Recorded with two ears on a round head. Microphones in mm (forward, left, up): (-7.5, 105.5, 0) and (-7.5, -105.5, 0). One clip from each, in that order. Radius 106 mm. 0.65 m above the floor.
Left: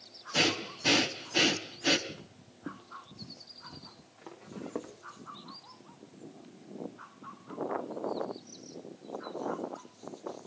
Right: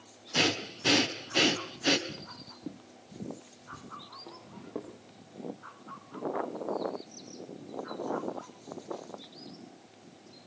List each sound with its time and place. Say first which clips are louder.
0.3 s breathing: even; centre (ahead or behind), 1.4 m
2.1 s footsteps: right 5 dB; 25° right (ahead or behind), 1.2 m; by 4.9 s 65° left (ahead or behind), 3 m